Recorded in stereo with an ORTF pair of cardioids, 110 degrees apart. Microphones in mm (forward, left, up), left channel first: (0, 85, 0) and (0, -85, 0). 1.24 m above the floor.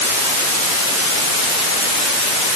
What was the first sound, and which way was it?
Only background noise.